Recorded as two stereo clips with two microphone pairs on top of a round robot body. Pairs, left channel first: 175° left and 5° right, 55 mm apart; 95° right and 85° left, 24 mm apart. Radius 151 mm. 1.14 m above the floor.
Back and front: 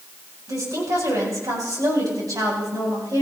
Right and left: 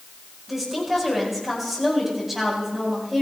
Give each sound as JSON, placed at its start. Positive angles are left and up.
{"t": 0.5, "sound": "a woman speaking", "azimuth_deg": -5, "distance_m": 8.0}